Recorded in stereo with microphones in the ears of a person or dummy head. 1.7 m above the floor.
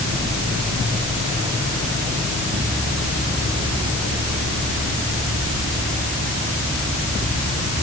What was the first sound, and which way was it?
Only background noise.